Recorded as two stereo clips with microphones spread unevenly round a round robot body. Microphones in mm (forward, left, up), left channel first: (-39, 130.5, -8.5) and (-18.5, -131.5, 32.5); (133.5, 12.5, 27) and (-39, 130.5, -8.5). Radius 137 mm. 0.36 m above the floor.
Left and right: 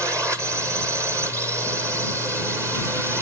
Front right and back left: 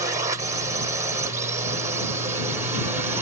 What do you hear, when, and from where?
0.0 s a drone: 170° right